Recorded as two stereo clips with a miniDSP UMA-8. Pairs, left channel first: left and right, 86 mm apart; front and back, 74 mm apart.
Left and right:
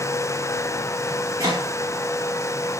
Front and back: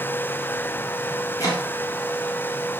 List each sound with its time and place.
1.4 s chopping: 40° right, 4 m